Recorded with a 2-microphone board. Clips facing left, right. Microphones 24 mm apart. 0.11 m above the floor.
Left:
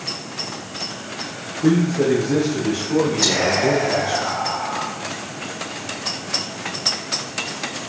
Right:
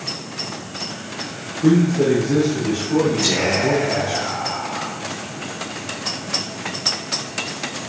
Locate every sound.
1.6 s a man speaking: 15° left (ahead or behind), 7 m; by 4.2 s 40° left (ahead or behind), 7 m
3.2 s whispering: 55° left (ahead or behind), 4.5 m